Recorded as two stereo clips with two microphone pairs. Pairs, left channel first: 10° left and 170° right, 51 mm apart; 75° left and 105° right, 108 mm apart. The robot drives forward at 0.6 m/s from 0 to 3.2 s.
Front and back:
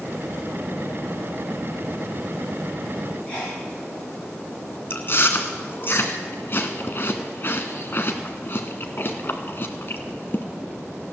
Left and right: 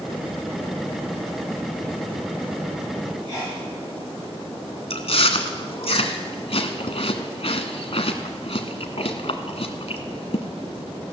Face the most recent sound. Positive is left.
turn(degrees=55)